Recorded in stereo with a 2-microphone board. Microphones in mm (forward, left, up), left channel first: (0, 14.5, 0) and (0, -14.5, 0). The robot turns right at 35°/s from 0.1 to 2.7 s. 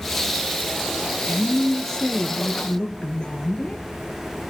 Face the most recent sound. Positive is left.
turn(degrees=45)